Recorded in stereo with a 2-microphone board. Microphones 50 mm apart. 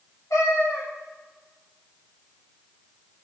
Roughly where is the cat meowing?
Left.